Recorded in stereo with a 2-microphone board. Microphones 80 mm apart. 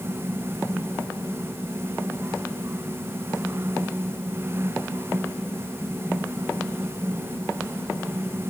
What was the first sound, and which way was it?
Only background noise.